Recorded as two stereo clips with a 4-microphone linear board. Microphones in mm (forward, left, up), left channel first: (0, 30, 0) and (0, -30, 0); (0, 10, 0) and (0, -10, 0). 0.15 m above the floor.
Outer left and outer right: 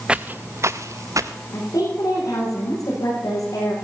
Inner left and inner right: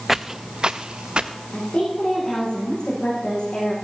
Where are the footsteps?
15° right (ahead or behind), 0.6 m; by 1.3 s 75° right (ahead or behind), 1.5 m.